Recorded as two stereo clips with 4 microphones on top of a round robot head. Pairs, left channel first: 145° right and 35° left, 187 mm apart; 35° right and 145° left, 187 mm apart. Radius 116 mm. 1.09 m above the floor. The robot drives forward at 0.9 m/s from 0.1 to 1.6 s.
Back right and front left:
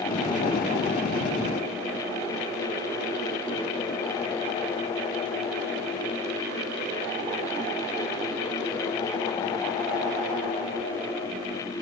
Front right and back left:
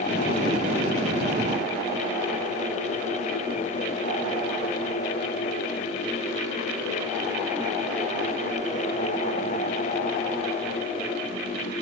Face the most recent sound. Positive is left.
No sound to turn to.